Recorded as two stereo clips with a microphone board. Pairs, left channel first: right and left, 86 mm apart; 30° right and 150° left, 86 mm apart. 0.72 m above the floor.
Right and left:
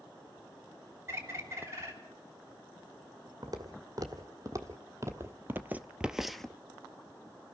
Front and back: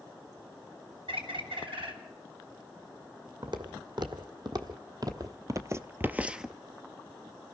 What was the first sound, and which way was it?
A bird, 145° left.